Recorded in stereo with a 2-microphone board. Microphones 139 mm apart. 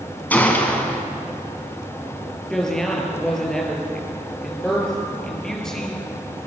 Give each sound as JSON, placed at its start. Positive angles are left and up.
{"t": 0.3, "sound": "a gunshot", "side_deg": 10, "distance_m": 3.0}
{"t": 2.5, "sound": "a woman speaking", "side_deg": 5, "distance_m": 5.5}